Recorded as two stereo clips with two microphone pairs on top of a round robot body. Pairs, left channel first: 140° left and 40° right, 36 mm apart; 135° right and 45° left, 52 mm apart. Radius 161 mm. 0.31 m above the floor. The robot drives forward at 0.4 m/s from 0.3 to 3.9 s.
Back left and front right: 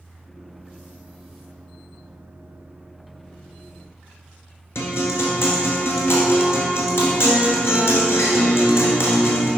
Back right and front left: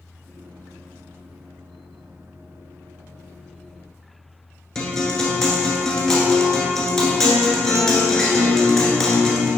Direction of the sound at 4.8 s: 145° left.